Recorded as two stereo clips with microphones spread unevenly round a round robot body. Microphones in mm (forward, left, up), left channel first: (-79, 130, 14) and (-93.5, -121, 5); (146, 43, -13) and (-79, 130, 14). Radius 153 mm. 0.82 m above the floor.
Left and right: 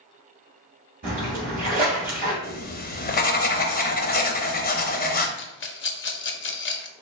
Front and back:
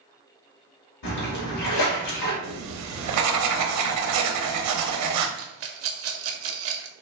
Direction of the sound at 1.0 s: 30° right.